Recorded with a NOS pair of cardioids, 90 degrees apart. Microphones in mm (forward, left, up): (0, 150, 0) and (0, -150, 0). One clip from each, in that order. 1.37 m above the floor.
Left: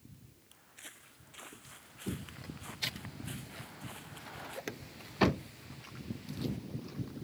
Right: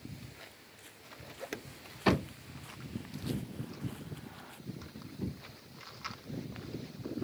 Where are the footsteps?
55° left; by 4.6 s 35° left.